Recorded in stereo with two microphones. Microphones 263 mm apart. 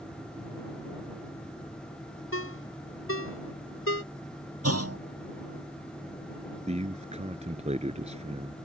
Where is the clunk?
60° right (ahead or behind).